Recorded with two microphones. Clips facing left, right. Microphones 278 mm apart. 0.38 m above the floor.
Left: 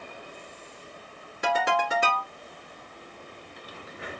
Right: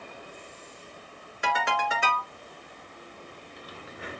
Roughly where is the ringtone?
Left.